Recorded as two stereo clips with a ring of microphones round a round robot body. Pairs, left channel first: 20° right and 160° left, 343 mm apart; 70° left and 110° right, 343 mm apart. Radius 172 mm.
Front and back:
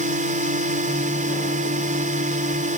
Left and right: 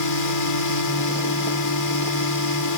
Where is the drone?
90° left.